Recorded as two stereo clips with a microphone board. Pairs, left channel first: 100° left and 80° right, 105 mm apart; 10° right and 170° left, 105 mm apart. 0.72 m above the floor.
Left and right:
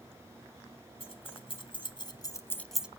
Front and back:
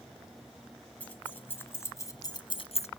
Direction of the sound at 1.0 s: 65° left.